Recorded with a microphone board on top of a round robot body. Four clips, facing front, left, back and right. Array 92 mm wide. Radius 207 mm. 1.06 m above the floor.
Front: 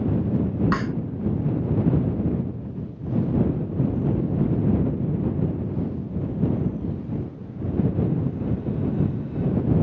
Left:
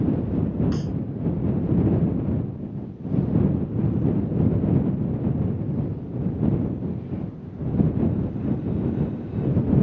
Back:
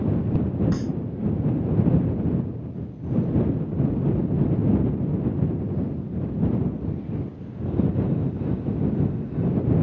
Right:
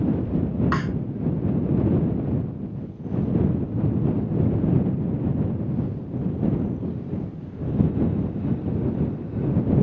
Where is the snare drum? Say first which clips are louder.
Right 3 dB, front 2 dB; 50° right.